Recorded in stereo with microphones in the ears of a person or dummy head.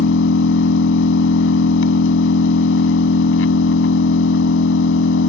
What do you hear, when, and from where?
0.0 s an engine running: 85° left